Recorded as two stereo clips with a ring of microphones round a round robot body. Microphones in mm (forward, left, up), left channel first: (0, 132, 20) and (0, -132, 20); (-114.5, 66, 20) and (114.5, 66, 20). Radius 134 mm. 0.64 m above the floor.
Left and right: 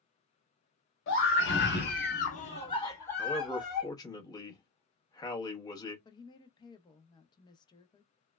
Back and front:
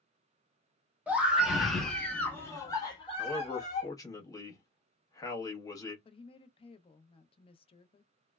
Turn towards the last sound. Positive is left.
turn(degrees=145)